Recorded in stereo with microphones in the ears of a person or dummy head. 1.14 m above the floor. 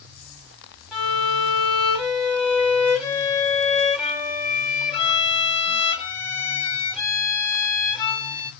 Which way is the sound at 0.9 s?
5° left (ahead or behind).